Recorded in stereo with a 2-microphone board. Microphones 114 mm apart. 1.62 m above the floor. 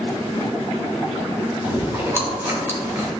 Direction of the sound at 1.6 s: 20° right (ahead or behind).